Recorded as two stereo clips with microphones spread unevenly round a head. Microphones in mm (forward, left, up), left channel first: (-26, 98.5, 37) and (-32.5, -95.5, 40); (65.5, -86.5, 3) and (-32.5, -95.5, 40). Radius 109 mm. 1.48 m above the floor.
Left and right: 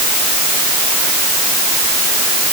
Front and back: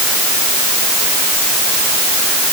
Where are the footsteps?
I don't hear footsteps.